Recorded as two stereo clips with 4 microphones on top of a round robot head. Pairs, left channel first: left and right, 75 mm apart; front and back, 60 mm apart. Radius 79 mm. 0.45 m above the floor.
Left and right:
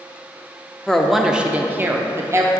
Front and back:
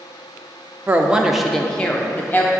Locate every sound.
0.9 s a woman speaking: 165° left, 0.7 m; by 2.5 s 50° right, 1.1 m